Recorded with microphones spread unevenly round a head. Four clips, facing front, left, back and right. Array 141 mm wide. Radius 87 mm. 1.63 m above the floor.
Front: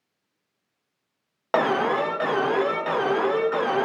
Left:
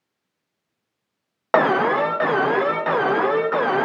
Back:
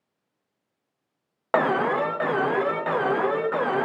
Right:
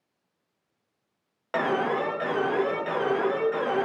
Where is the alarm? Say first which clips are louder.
Left 8 dB, even; 70° left, 0.6 m.